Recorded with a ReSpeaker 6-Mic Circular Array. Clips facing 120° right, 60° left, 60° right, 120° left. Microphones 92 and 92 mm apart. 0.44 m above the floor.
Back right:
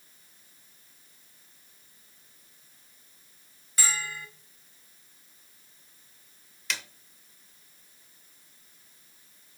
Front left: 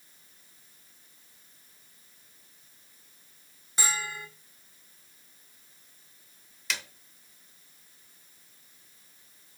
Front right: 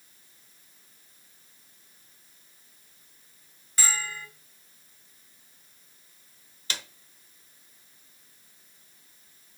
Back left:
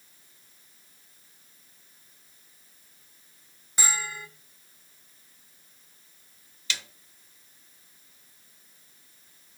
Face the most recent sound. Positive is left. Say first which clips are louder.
# even, even
turn(degrees=-30)